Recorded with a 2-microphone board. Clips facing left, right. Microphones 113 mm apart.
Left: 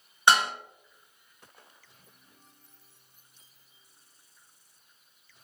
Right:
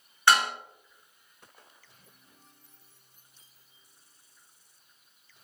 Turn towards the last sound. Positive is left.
turn(degrees=20)  # may be behind; listen again after turning